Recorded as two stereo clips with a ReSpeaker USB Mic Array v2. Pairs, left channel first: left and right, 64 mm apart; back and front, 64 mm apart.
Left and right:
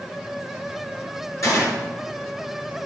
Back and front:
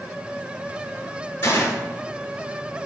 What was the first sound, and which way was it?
A gunshot, 130° left.